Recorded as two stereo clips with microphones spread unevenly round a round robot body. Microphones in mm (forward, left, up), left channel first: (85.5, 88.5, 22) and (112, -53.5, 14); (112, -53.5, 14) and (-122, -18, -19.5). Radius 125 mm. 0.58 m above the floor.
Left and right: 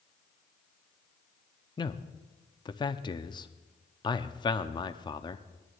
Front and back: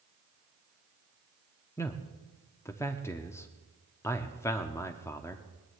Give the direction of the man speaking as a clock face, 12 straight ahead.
9 o'clock.